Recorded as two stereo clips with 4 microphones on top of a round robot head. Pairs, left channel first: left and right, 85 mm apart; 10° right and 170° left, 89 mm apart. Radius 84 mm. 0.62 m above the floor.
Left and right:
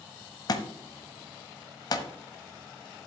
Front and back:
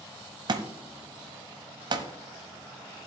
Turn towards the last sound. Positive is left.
turn(degrees=135)